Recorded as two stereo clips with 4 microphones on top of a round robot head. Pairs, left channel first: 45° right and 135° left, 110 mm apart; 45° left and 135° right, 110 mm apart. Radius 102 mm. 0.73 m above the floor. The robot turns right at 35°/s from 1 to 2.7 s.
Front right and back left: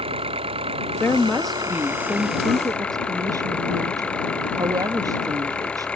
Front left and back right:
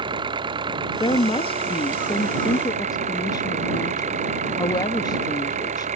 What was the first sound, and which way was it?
An engine running, 175° left.